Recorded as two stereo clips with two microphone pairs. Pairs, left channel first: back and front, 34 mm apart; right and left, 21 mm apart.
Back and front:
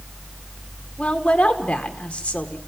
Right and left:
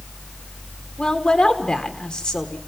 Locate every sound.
1.0 s a woman speaking: 125° right, 1.9 m